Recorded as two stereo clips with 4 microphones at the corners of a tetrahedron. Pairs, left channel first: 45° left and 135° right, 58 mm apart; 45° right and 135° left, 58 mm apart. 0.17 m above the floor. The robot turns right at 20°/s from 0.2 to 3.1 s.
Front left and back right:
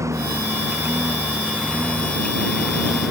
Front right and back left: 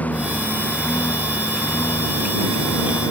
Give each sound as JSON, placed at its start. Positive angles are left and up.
{"t": 0.0, "sound": "a lawn mower", "azimuth_deg": -105}